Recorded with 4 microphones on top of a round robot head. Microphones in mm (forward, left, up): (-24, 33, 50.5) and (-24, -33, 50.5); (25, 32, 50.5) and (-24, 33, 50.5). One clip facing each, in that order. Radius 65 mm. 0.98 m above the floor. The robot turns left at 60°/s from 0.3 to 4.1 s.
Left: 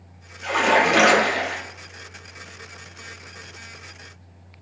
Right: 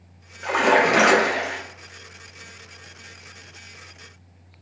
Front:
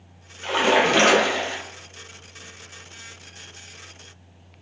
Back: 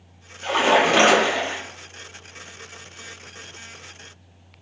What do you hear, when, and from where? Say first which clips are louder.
0.4 s a splash: right 1 dB, back 1 dB; 85° right, 0.9 m; by 1.6 s 160° right, 0.9 m